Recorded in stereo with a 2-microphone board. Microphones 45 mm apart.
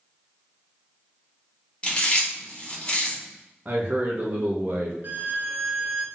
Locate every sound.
1.8 s chewing: 25° left (ahead or behind), 1.7 m
3.6 s a man speaking: 30° right (ahead or behind), 0.8 m
5.0 s a violin: 45° right (ahead or behind), 0.6 m